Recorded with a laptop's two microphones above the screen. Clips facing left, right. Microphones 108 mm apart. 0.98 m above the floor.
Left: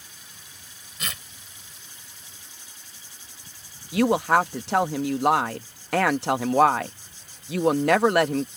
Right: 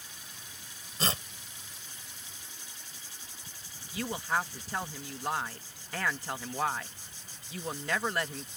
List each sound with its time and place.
1.0 s tearing paper: 35° right (ahead or behind)
3.9 s a woman speaking: 80° left